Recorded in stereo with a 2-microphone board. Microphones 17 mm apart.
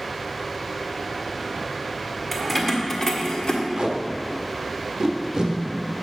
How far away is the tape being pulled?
About 1.2 m.